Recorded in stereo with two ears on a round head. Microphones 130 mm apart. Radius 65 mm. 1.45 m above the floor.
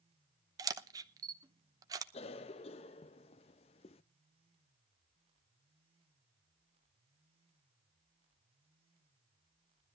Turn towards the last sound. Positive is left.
turn(degrees=40)  # may be behind; listen again after turning